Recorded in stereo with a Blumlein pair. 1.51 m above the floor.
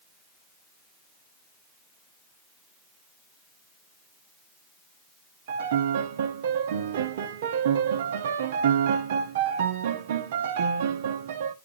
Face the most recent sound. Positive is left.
turn(degrees=-55)